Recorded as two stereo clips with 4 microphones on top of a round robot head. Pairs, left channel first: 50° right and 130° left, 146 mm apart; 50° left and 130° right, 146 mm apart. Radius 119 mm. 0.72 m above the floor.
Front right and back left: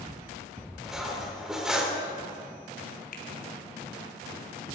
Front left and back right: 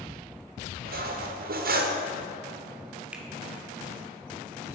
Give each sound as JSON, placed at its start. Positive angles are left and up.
{"t": 0.8, "sound": "cutlery clinking", "azimuth_deg": -145, "distance_m": 1.6}
{"t": 3.1, "sound": "a finger snap", "azimuth_deg": -45, "distance_m": 2.0}